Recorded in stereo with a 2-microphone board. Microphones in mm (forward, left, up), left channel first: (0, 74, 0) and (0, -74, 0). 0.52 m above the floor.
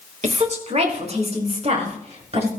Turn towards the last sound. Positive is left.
turn(degrees=-45)  # may be behind; listen again after turning